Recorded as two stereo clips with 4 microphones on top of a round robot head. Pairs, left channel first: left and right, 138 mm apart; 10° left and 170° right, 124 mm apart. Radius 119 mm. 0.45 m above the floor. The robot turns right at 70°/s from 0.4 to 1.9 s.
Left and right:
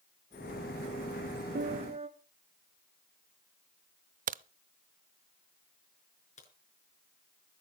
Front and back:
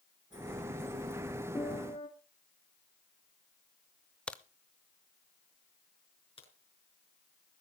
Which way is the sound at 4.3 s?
70° right.